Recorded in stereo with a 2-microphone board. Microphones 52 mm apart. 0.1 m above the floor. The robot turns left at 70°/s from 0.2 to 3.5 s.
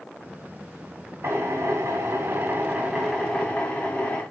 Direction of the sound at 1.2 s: 50° right.